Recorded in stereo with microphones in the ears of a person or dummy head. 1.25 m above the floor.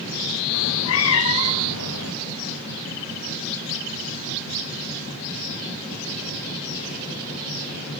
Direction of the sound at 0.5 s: 80° left.